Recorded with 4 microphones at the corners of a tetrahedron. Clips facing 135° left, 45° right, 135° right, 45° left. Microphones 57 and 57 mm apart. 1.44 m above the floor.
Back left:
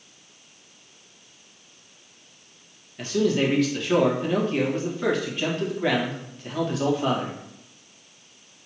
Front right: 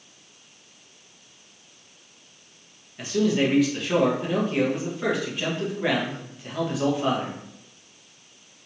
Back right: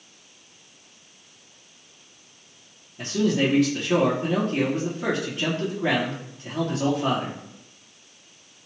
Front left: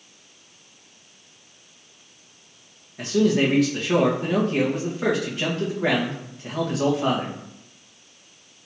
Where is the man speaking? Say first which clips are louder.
Even, front left 3 dB; 40° left, 1.5 m.